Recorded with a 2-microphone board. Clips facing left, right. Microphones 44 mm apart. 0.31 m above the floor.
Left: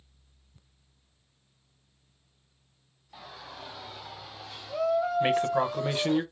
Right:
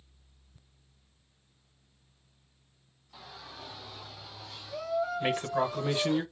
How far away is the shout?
About 2 m.